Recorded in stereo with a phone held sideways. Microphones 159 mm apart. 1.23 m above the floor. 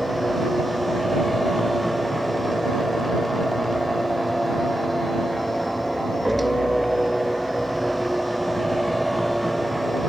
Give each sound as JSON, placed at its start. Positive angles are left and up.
{"t": 0.0, "sound": "a machine running", "side_deg": 0}